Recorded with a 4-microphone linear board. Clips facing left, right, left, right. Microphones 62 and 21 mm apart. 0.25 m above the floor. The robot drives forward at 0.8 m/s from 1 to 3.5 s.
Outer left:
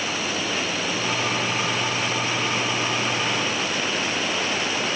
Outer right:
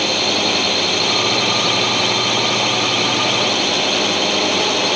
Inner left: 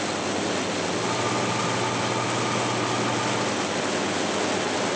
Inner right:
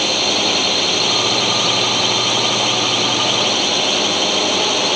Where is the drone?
80° right.